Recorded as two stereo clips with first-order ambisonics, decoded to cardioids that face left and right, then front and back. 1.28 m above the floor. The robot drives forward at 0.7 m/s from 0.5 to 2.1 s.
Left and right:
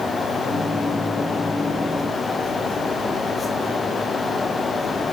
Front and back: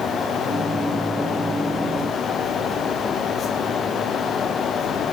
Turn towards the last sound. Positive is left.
No sound to turn to.